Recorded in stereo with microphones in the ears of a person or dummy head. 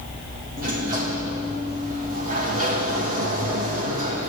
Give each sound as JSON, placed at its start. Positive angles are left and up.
{"t": 0.6, "sound": "a sliding door", "side_deg": -40, "distance_m": 2.5}